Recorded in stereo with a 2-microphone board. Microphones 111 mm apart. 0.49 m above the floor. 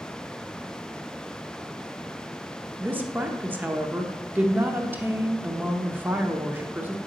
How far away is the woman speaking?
About 0.7 m.